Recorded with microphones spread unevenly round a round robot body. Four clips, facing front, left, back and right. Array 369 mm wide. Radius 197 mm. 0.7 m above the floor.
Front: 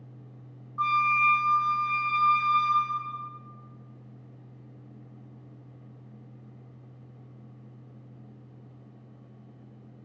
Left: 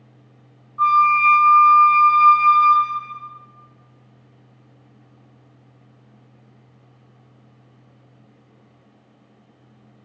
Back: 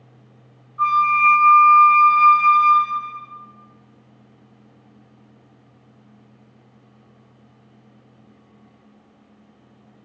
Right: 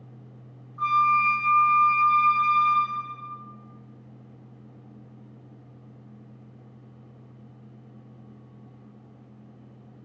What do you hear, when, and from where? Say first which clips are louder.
0.8 s a flute: left 6 dB, back 8 dB; 30° left, 0.5 m